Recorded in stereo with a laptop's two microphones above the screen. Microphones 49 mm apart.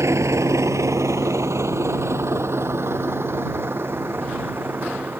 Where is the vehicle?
70° right (ahead or behind); by 5.2 s 45° right (ahead or behind).